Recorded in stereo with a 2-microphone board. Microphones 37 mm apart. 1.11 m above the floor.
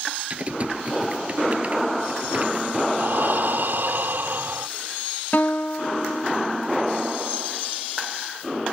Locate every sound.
0.3 s typing on a keyboard: 35° right (ahead or behind)
3.0 s breathing: 60° right (ahead or behind)
5.3 s a guitar: 50° left (ahead or behind)